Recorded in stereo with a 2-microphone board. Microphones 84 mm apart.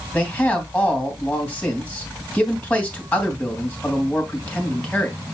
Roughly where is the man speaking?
Centre.